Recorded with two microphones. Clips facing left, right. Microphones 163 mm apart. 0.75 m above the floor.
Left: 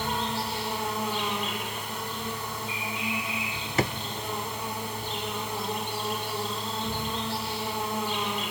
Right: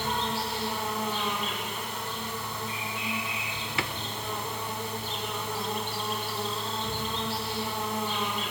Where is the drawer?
40° left (ahead or behind), 0.8 m.